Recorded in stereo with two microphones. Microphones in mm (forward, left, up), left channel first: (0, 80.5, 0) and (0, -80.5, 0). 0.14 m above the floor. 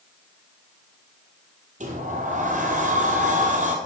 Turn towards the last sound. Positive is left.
turn(degrees=-50)  # may be behind; listen again after turning